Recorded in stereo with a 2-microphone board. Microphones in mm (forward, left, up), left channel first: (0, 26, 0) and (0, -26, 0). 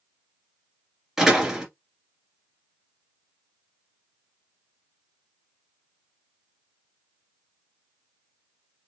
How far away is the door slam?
About 2 m.